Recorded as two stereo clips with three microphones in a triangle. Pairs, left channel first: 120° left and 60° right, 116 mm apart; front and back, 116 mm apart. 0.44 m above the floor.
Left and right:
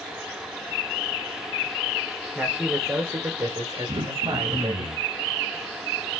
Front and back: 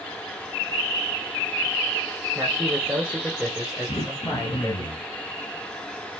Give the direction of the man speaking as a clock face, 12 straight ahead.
4 o'clock.